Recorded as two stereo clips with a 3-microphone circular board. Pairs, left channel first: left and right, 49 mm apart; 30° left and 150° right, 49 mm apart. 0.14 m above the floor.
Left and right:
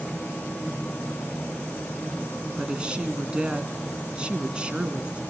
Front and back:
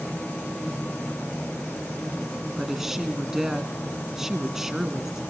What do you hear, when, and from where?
2.6 s a woman speaking: 85° right, 1.6 m